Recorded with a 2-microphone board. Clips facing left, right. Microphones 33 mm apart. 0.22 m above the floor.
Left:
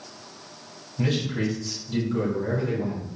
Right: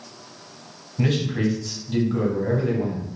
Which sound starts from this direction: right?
A man speaking, at 1.0 s.